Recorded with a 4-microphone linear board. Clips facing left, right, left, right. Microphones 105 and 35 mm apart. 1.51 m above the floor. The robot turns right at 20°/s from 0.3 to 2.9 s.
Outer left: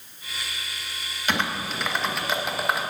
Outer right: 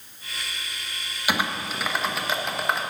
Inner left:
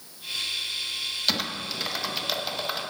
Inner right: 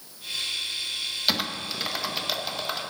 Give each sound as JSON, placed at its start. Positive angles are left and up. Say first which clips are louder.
{"t": 1.3, "sound": "typing on a keyboard", "louder": "even, inner right 2 dB", "side_deg": -10, "distance_m": 0.8}